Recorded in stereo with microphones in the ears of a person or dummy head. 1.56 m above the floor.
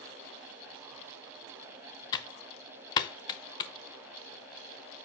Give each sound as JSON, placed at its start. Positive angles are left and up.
{"t": 2.1, "sound": "typing on a keyboard", "side_deg": 25, "distance_m": 0.7}